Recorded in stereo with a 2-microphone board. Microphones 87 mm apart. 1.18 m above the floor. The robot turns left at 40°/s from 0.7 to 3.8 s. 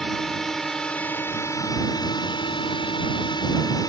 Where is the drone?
175° left; by 3.9 s 50° left.